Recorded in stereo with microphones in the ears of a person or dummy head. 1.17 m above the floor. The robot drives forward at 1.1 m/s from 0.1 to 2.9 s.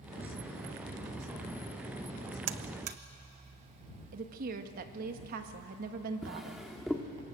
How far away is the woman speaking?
About 1.6 m.